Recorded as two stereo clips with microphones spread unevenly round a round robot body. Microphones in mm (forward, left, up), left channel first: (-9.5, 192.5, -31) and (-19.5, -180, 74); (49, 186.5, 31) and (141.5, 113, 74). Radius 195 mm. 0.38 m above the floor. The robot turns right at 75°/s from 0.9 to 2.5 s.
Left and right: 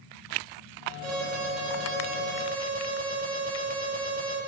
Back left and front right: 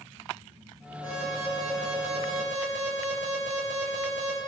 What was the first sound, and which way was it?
An alarm, 145° right.